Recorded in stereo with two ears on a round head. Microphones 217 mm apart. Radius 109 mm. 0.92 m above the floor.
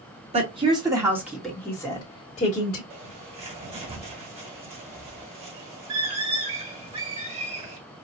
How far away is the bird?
About 1.9 m.